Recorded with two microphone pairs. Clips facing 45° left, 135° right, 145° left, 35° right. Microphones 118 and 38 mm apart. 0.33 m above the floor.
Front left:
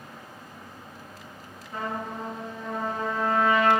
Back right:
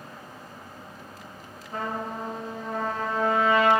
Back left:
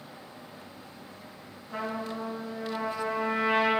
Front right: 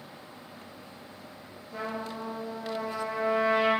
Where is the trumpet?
165° left, 5 m.